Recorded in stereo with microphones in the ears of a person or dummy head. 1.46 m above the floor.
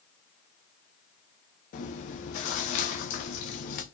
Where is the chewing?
40° left (ahead or behind), 0.6 m.